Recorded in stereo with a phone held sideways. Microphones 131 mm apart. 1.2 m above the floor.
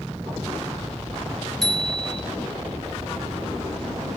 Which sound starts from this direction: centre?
A bicycle bell, at 1.6 s.